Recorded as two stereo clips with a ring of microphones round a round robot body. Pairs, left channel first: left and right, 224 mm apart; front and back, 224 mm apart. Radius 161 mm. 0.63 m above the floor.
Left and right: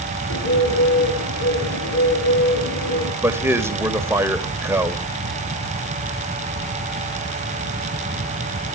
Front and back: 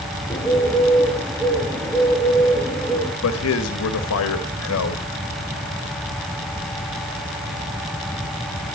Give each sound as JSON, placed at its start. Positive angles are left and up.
{"t": 0.3, "sound": "a bird", "azimuth_deg": 80, "distance_m": 5.0}
{"t": 3.2, "sound": "a man speaking", "azimuth_deg": -10, "distance_m": 2.0}